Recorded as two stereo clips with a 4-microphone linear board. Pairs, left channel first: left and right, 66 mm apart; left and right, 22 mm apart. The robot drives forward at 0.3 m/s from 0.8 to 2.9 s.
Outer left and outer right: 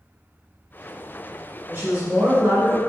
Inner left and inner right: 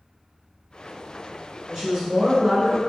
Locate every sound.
1.7 s a woman speaking: 40° right (ahead or behind), 1.8 m